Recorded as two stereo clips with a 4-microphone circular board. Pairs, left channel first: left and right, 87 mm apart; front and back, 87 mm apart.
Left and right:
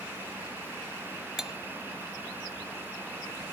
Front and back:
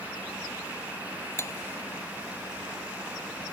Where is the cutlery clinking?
10° right, 0.5 m.